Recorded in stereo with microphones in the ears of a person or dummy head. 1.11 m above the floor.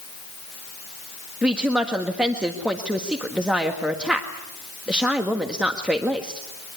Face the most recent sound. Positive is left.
turn(degrees=-5)  # may be behind; listen again after turning